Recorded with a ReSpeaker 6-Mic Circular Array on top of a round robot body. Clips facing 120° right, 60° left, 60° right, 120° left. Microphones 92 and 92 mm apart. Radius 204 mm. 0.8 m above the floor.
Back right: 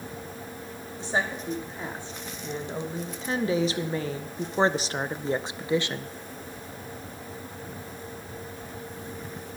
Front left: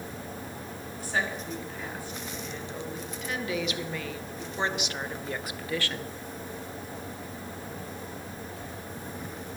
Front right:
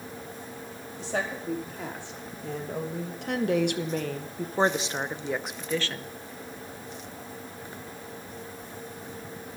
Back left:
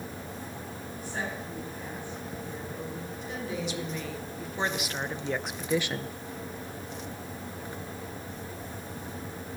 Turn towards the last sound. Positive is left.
turn(degrees=175)